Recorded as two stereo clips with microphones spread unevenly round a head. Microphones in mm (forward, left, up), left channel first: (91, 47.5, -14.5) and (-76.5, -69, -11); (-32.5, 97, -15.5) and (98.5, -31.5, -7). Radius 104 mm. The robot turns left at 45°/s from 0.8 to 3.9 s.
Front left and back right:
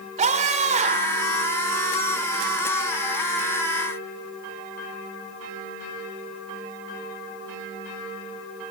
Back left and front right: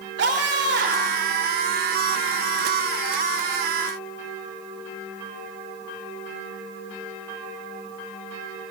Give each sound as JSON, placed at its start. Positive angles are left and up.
{"t": 0.2, "sound": "a scream", "azimuth_deg": -90, "distance_m": 5.5}